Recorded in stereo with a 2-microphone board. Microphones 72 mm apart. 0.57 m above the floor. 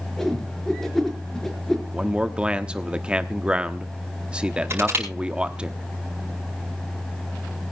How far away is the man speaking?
About 0.9 m.